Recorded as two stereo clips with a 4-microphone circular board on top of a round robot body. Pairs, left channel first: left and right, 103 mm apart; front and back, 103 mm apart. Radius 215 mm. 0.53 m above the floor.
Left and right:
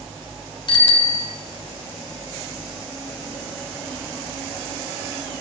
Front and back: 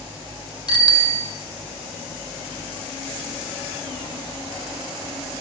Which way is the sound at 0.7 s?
50° left.